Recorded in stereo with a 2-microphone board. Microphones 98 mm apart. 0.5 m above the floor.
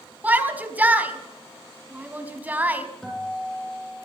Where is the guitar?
5° left (ahead or behind), 9.5 m.